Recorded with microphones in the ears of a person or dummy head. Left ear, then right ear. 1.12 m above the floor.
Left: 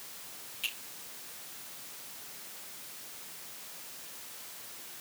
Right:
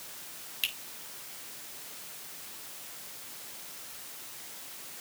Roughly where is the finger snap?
Right.